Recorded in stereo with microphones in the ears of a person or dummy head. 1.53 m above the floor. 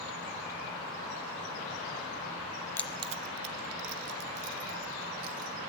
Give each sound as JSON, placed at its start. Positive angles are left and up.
{"t": 2.8, "sound": "keys jangling", "side_deg": 15, "distance_m": 0.5}